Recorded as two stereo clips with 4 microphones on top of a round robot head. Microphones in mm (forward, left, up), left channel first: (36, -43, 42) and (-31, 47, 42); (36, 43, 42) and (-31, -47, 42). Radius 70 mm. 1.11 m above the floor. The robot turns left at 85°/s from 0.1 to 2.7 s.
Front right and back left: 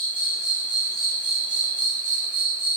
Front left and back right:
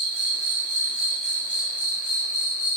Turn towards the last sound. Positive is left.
turn(degrees=50)